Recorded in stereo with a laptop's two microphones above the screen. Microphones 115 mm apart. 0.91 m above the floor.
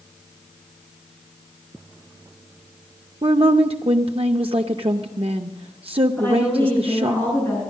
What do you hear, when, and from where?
3.2 s a woman speaking: 55° right (ahead or behind), 0.5 m
6.2 s a woman speaking: 15° left (ahead or behind), 8.5 m